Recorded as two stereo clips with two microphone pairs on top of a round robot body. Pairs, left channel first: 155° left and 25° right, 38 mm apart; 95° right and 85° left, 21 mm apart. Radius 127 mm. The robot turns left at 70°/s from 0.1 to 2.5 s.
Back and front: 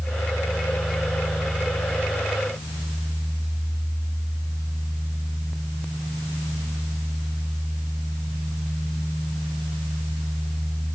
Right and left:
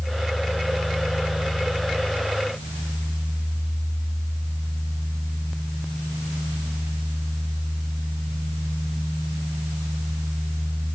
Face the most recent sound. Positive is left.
No sound to turn to.